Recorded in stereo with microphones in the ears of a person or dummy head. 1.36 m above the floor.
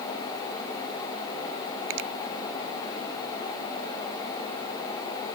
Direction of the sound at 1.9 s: 70° right (ahead or behind).